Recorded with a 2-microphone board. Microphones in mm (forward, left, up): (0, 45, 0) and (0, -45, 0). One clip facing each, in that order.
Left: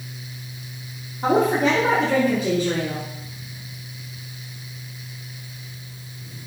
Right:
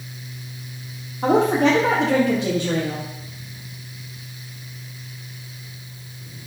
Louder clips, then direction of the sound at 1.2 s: Right 2 dB; 70° right (ahead or behind).